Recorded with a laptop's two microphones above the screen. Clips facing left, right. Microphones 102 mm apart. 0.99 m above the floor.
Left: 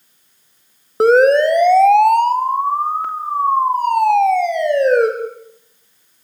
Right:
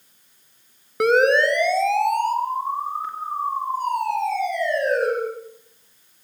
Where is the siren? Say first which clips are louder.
Left 6 dB; 35° left (ahead or behind), 2 m; by 5.1 s 75° left (ahead or behind), 5.5 m.